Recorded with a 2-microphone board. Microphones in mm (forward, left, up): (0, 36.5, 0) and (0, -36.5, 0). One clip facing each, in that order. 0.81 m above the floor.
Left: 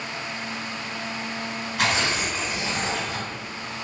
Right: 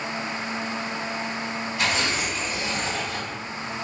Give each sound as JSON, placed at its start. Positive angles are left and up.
{"t": 1.8, "sound": "tearing paper", "side_deg": 65, "distance_m": 1.4}